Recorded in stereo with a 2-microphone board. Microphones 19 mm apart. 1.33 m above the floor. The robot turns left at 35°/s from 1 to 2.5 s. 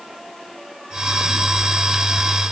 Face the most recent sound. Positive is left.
No sound to turn to.